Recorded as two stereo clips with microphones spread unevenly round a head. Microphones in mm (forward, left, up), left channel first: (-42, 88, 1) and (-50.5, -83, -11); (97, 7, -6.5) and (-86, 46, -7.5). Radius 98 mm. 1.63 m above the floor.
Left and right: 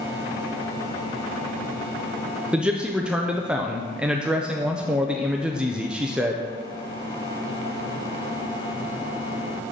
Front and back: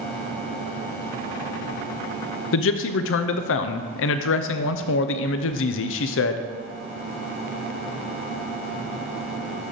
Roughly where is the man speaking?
Ahead.